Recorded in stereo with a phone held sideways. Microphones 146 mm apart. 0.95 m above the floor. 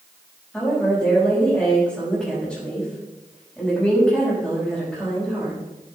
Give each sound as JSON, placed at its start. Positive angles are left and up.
{"t": 0.5, "sound": "a woman speaking", "side_deg": 0, "distance_m": 5.5}